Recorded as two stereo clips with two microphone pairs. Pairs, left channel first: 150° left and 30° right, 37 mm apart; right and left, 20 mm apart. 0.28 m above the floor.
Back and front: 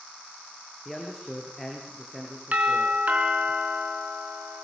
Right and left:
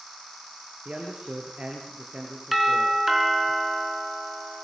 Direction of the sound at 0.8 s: 65° left.